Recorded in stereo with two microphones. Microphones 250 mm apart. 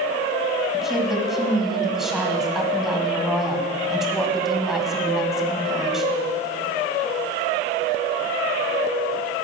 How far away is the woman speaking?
About 1.7 m.